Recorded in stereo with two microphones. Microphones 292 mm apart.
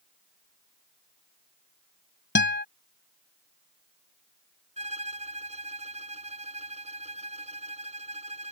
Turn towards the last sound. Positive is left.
turn(degrees=-25)  # may be behind; listen again after turning